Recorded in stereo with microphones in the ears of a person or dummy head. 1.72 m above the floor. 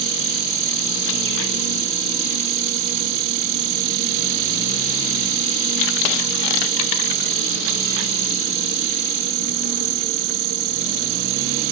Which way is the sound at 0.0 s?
75° right (ahead or behind).